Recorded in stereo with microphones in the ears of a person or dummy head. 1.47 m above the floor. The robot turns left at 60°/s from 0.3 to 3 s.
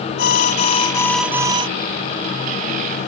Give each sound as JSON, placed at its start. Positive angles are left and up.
{"t": 0.2, "sound": "an alarm", "azimuth_deg": 55}